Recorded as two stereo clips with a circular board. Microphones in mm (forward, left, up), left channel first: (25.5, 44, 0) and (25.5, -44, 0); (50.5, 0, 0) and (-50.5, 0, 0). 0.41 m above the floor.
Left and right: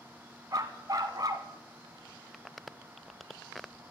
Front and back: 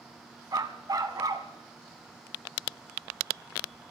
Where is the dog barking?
130° right, 0.9 m.